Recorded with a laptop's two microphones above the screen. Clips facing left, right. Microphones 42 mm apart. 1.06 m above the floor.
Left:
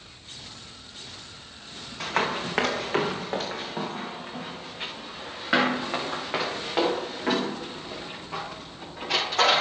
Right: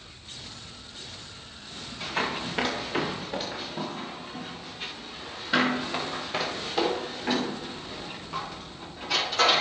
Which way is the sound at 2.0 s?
75° left (ahead or behind).